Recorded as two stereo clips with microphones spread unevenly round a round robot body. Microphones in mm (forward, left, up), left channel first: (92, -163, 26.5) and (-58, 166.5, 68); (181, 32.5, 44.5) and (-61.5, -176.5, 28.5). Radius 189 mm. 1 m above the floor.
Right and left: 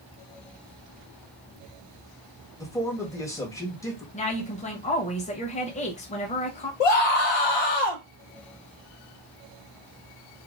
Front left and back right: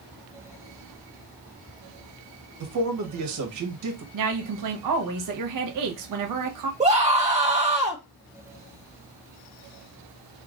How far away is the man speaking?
About 1.1 m.